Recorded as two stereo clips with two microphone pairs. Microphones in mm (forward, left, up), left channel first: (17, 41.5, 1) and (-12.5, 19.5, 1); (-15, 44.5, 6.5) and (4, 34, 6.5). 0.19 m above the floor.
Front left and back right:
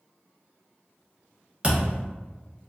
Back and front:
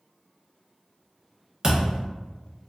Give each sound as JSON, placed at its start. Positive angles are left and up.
{"t": 1.6, "sound": "a thud", "azimuth_deg": -85, "distance_m": 1.1}